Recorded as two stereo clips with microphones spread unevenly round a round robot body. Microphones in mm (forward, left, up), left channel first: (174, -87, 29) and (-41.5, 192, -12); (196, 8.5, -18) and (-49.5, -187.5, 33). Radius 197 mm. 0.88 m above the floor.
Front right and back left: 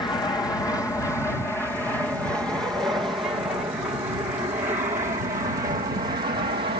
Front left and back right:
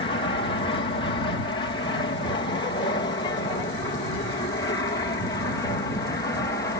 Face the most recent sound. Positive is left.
turn(degrees=85)